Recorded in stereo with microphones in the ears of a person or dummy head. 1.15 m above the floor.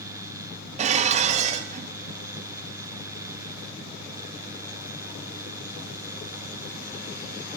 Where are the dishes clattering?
40° right (ahead or behind), 0.9 m.